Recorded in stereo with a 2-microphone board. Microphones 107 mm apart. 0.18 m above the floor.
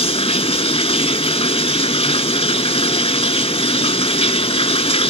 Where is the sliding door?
No sliding door in this recording.